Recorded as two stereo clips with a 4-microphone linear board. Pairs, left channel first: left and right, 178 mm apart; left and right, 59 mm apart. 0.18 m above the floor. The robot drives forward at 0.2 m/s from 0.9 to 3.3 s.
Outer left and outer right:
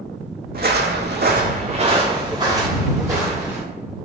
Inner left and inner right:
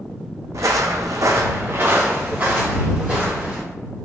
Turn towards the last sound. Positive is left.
turn(degrees=-15)  # may be behind; listen again after turning